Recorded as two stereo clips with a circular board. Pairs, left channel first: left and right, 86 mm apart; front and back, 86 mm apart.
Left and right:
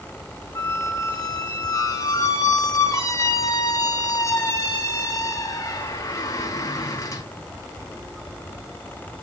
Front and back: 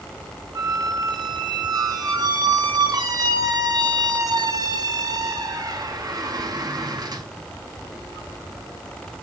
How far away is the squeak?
About 0.7 m.